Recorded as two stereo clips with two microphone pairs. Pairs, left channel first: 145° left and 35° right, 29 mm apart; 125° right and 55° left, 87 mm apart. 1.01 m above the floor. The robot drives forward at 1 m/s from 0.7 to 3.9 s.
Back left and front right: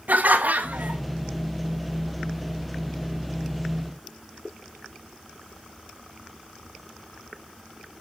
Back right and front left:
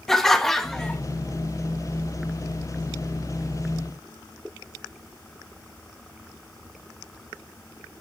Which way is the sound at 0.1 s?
40° right.